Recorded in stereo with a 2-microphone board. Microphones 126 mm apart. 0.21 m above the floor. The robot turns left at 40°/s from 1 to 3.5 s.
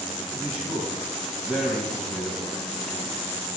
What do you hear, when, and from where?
0.3 s a man speaking: 5° right (ahead or behind), 1.1 m; by 3.2 s 20° left (ahead or behind), 1.1 m